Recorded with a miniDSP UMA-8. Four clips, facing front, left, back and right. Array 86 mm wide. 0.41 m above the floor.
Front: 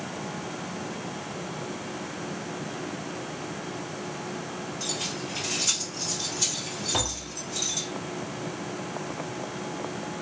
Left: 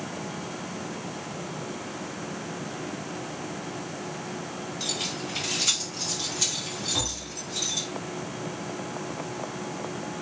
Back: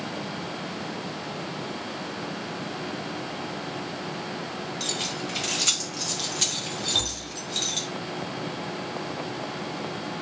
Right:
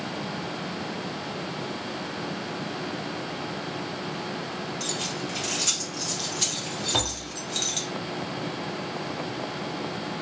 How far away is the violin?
I don't hear a violin.